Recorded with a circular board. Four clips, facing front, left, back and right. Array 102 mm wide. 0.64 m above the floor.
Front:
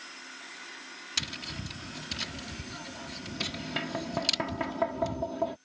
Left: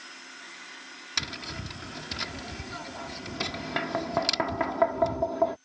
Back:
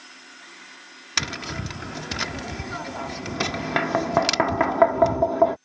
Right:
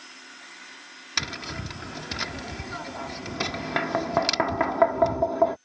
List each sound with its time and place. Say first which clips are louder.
1.2 s tapping: right 4 dB, back 11 dB; 160° right